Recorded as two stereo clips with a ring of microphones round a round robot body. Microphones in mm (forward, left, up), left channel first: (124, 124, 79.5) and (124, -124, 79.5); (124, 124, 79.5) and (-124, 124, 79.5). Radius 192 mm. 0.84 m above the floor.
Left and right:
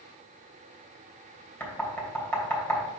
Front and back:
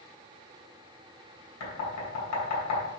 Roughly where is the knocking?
Ahead.